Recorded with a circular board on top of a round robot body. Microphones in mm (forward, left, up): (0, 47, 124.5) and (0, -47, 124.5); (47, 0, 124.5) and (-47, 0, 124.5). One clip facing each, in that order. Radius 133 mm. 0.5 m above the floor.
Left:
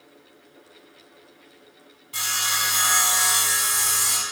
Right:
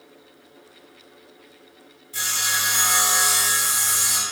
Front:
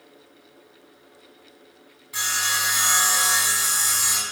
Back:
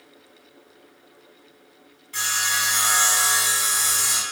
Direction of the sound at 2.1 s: 80° left.